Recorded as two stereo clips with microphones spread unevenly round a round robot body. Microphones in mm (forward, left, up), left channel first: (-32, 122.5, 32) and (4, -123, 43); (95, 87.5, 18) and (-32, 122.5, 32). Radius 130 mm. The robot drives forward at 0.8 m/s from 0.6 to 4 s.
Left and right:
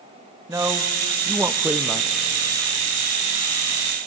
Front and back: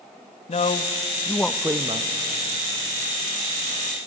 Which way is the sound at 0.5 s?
5° right.